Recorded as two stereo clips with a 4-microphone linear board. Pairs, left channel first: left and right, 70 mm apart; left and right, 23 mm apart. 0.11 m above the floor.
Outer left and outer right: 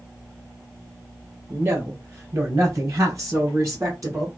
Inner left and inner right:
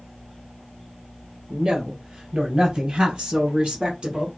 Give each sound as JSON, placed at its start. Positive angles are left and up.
{"t": 1.5, "sound": "a woman speaking", "side_deg": -35, "distance_m": 2.5}